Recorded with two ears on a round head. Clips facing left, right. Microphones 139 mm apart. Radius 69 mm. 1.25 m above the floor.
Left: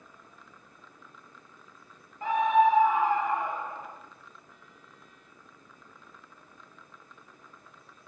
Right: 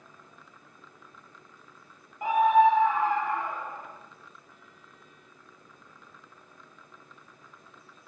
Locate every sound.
2.2 s a scream: 15° right (ahead or behind), 0.9 m; by 4.0 s 20° left (ahead or behind), 2.5 m